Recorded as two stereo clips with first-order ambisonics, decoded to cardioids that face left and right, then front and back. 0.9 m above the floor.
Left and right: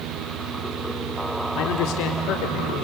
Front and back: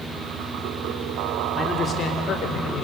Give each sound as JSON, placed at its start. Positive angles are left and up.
{"t": 1.6, "sound": "a man speaking", "azimuth_deg": 75, "distance_m": 1.8}